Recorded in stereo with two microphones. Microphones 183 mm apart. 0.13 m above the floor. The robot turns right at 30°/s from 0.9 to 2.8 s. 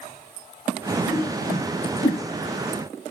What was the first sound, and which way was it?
A whoosh, 30° left (ahead or behind).